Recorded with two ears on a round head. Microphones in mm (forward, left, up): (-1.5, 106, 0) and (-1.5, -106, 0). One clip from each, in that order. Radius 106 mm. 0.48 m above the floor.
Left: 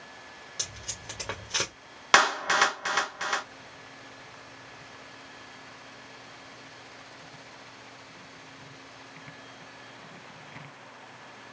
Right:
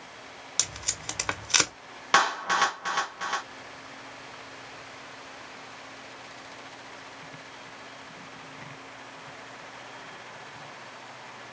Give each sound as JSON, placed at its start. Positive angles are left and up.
{"t": 0.6, "sound": "tape being pulled", "side_deg": -80, "distance_m": 1.2}
{"t": 2.1, "sound": "a clap", "side_deg": 15, "distance_m": 0.7}